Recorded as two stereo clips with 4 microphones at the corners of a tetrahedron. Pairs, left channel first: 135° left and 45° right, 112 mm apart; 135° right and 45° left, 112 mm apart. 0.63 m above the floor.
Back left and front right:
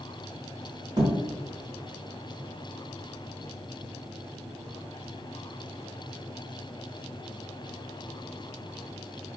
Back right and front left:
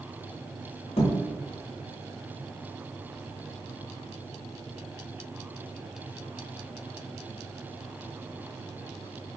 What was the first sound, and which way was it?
A thud, 100° right.